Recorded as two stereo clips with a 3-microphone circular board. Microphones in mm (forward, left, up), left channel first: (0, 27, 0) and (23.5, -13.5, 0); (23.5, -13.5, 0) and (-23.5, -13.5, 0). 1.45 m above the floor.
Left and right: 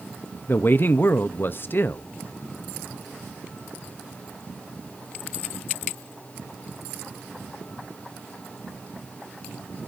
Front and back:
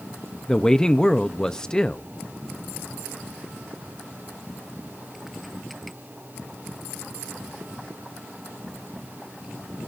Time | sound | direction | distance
0.5 | a man speaking | 75° left | 0.6 m